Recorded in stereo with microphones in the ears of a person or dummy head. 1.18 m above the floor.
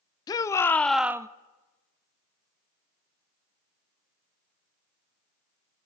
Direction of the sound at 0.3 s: 20° left (ahead or behind).